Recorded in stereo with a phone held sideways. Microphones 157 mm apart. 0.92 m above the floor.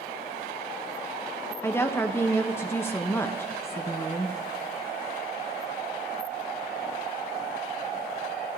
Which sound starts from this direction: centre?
A woman speaking, at 1.6 s.